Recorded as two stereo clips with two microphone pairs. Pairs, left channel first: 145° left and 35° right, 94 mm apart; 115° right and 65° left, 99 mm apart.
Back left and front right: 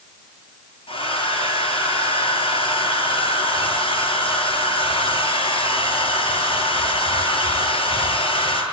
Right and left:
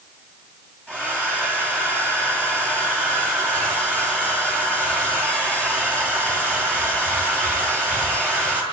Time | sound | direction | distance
0.9 | a hair dryer | 165° left | 9.5 m